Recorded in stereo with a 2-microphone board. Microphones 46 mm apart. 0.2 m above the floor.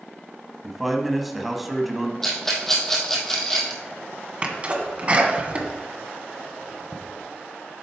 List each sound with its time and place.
0.6 s a man speaking: centre (ahead or behind), 1.1 m
2.2 s a rattle: 10° left (ahead or behind), 2 m
4.4 s a sneeze: 30° right (ahead or behind), 1.8 m